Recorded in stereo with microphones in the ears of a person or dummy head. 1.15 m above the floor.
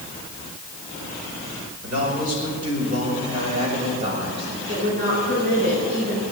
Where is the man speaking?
45° right (ahead or behind), 5 m; by 4.6 s 35° right (ahead or behind), 6 m.